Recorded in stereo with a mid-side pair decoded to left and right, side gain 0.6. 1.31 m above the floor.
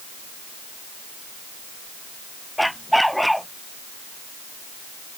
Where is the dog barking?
Straight ahead.